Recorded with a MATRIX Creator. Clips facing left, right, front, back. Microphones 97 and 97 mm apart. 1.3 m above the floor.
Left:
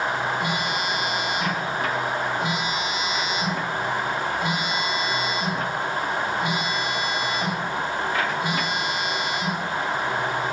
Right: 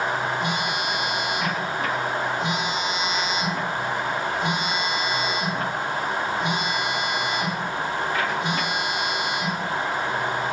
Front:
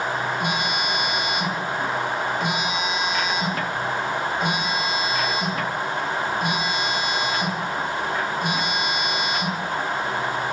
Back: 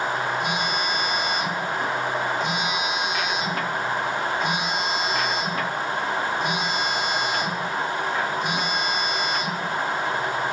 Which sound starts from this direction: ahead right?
A phone buzzing, at 0.4 s.